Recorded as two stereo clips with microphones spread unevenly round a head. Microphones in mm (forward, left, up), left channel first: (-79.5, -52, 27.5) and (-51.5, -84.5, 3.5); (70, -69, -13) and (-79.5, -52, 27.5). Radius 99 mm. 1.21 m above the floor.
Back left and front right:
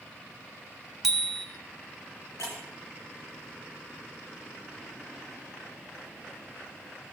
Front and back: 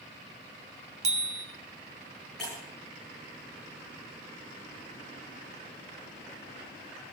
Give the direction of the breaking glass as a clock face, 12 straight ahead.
9 o'clock.